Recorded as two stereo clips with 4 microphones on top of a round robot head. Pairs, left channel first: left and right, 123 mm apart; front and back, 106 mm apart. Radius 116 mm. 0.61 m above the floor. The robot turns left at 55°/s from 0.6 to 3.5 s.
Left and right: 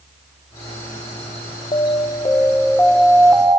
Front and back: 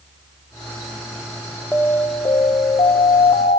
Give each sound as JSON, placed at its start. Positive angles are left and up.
{"t": 1.7, "sound": "an alarm", "azimuth_deg": 75, "distance_m": 1.8}